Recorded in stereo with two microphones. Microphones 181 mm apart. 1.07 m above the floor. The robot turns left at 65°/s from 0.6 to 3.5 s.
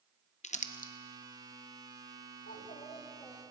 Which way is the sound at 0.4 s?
40° left (ahead or behind).